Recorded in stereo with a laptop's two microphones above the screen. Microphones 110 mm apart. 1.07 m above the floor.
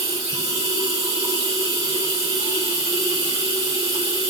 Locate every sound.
0.0 s running water: 35° right (ahead or behind), 4 m